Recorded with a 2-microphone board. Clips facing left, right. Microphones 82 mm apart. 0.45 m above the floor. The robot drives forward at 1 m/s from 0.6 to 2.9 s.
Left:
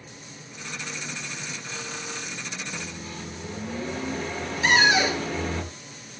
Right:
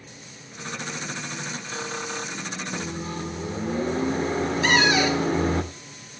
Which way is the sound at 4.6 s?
15° left (ahead or behind).